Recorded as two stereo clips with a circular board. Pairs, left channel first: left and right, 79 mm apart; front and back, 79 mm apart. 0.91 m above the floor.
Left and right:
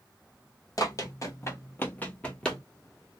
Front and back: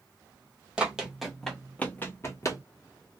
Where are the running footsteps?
105° left, 1.2 m; by 2.6 s 10° left, 1.2 m.